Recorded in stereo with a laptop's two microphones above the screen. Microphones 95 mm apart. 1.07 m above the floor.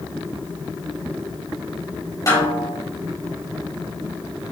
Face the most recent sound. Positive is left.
turn(degrees=30)  # may be behind; listen again after turning